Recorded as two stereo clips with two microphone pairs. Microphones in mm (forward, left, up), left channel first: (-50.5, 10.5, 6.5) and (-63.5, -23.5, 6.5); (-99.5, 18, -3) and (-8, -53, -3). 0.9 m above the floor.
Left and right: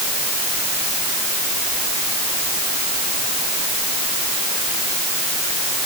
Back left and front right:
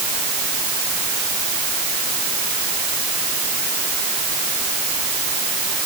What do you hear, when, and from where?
Only background noise.